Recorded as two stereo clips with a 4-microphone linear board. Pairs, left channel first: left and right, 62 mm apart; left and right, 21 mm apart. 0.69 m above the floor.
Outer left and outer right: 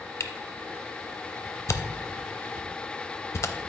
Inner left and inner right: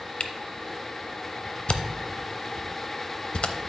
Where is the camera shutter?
55° left (ahead or behind), 0.6 m.